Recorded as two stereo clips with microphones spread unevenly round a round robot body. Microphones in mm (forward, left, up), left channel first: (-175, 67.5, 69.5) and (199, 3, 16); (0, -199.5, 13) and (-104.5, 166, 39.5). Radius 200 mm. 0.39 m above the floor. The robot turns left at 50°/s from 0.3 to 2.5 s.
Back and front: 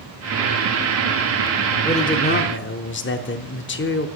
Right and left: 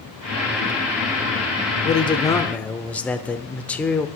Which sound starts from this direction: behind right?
A man speaking, at 1.8 s.